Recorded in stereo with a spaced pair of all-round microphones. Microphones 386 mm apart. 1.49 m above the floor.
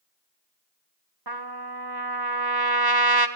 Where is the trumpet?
70° right (ahead or behind), 1.3 m.